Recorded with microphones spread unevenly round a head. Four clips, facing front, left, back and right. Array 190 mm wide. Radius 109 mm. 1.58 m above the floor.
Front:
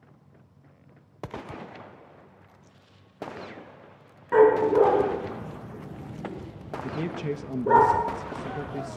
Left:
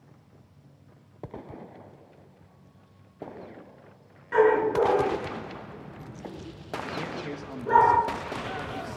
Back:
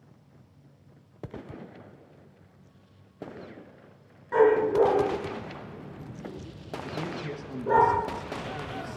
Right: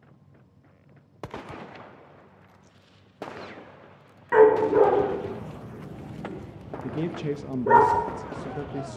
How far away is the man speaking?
About 1.5 m.